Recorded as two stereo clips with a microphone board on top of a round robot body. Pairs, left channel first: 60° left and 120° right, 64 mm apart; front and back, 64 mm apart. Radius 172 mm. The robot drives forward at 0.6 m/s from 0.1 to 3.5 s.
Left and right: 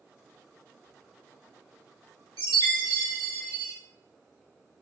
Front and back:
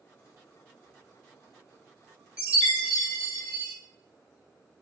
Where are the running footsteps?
I don't hear running footsteps.